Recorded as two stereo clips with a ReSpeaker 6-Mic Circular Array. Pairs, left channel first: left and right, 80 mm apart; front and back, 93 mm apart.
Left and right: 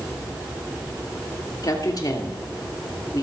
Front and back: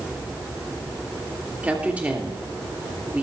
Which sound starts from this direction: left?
A woman speaking, at 1.6 s.